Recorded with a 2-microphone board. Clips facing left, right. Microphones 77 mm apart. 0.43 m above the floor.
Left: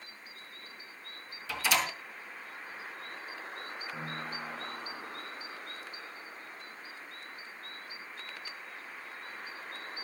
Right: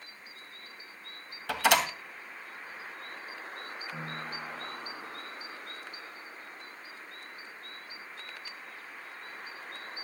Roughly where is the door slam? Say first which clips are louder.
Right 5 dB; right.